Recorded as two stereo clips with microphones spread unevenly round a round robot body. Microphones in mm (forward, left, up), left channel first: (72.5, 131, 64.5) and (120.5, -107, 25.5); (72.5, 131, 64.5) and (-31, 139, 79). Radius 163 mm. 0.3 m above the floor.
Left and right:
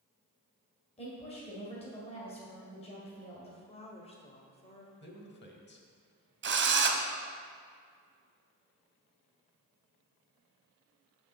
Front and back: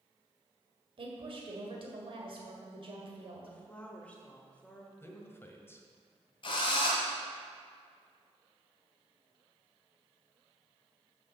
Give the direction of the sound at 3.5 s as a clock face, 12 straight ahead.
11 o'clock.